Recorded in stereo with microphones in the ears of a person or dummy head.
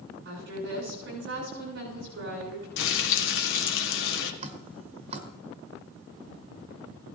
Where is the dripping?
40° right (ahead or behind), 1.3 m.